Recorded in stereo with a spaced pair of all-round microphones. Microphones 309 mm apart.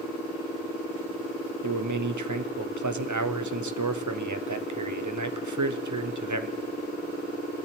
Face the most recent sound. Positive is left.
turn(degrees=-70)  # may be behind; listen again after turning